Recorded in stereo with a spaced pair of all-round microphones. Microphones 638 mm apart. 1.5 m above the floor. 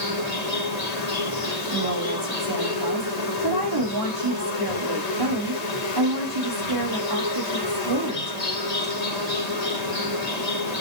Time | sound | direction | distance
0.0 | an insect | 85° left | 2.0 m
1.7 | a woman speaking | 35° right (ahead or behind) | 3 m